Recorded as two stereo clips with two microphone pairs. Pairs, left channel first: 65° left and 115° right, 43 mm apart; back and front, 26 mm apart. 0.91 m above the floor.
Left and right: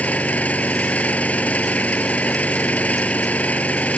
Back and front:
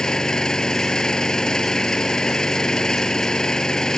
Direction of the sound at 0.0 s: 120° left.